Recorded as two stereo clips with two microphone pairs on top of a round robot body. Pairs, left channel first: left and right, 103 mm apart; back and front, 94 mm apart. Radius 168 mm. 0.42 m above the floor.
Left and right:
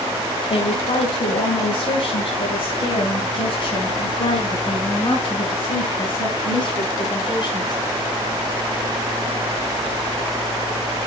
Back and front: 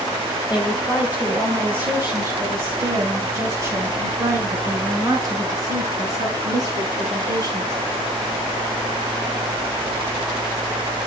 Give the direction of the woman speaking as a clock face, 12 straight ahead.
9 o'clock.